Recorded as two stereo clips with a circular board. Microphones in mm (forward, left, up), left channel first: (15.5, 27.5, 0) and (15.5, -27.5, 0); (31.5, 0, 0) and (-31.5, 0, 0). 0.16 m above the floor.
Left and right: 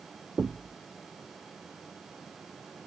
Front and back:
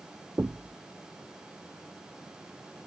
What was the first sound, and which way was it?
Knocking, 145° right.